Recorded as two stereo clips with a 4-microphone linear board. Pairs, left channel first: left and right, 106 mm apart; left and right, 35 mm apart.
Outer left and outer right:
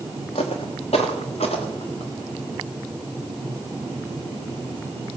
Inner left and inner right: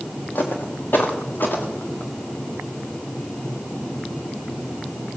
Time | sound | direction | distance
0.3 | footsteps | 75° left (ahead or behind) | 2.5 m